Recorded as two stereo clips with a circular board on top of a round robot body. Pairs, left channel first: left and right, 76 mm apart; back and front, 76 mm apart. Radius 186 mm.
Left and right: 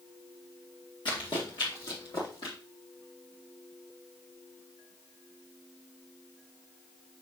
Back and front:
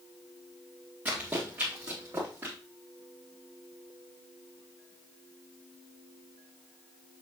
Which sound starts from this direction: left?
Running footsteps, at 1.1 s.